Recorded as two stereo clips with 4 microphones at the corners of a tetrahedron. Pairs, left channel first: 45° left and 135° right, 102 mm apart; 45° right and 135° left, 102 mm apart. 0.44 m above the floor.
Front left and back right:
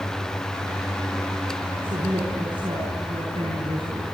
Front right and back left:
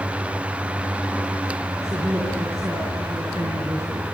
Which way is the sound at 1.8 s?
165° right.